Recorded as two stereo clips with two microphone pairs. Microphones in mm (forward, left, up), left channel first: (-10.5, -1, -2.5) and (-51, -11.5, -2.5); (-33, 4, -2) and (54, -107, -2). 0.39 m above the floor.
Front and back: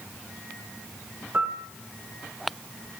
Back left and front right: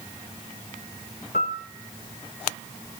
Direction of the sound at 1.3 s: 135° left.